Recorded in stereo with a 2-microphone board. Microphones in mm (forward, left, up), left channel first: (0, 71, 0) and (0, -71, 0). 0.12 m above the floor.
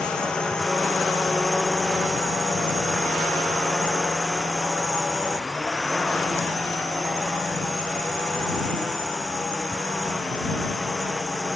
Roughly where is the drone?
Centre.